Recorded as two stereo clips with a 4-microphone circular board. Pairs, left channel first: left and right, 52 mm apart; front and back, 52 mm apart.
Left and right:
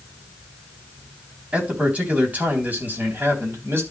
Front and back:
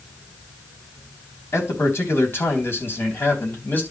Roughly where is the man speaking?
Ahead right.